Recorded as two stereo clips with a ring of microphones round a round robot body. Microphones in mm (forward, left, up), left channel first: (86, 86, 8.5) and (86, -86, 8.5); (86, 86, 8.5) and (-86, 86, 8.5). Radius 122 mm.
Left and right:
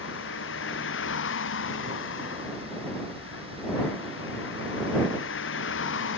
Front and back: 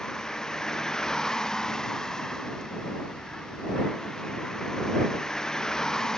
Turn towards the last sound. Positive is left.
turn(degrees=85)